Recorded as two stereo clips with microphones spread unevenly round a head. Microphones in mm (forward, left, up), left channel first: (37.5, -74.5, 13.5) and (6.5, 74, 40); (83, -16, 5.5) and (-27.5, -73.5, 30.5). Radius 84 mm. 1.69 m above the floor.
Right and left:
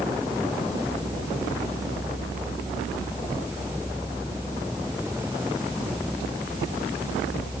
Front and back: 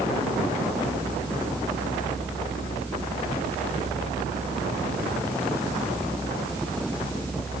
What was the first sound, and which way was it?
Only background noise.